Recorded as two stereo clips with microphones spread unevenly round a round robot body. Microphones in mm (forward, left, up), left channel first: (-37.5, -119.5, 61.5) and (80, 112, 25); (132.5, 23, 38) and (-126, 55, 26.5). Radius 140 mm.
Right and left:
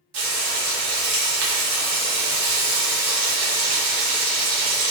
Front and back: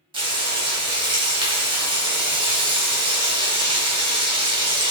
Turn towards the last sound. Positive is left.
turn(degrees=100)